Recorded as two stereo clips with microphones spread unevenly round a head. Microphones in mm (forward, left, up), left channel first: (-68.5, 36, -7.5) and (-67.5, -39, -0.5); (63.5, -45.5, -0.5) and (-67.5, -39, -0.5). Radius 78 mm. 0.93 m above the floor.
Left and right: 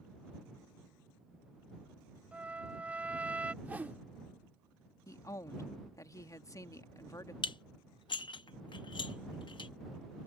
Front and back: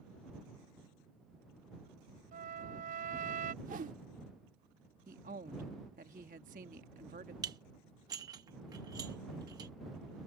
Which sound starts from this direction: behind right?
A whoosh, at 3.6 s.